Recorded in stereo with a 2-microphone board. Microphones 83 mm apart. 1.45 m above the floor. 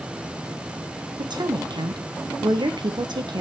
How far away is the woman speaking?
About 1.4 m.